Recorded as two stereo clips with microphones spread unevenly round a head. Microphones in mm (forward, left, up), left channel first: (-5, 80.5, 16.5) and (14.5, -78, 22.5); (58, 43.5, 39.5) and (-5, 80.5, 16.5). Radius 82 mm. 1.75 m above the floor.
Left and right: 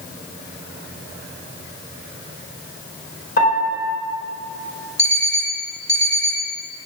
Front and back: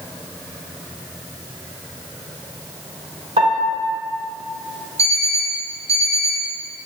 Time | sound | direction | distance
3.4 | a piano | 135° left | 4 m
5.0 | an alarm clock | 175° right | 3 m